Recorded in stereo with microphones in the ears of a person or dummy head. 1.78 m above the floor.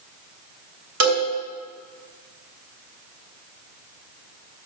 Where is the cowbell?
80° right, 4 m.